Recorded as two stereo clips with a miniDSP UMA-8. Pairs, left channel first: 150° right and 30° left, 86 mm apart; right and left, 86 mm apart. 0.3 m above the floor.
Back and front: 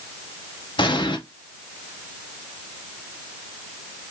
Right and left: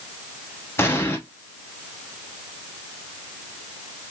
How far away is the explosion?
About 0.7 m.